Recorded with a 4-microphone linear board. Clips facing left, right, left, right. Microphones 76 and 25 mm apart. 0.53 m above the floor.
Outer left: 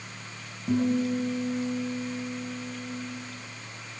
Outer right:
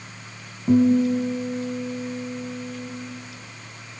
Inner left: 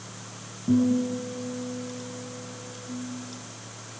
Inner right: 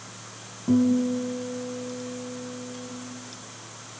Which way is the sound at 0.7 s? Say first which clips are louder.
Outer right 8 dB, inner right 1 dB; 30° right (ahead or behind).